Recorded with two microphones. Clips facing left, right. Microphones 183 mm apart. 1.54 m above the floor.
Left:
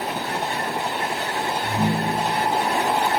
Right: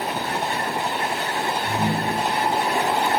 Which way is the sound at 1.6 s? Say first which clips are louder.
Left 2 dB; 35° left (ahead or behind).